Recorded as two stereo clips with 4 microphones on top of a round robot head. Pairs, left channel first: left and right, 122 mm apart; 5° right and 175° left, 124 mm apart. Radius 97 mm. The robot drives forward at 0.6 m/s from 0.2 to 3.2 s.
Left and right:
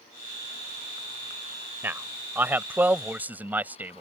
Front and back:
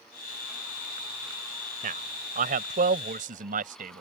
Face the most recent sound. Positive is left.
turn(degrees=-165)